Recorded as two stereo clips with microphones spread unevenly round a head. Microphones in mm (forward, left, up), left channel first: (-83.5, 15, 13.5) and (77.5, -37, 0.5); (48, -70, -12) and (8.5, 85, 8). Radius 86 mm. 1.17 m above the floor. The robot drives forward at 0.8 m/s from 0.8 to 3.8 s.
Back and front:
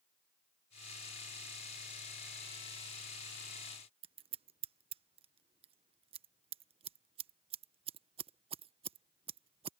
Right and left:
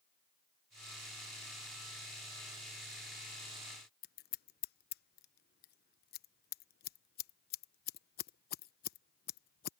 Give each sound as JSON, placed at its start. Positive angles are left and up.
{"t": 4.0, "sound": "scissors", "azimuth_deg": -70}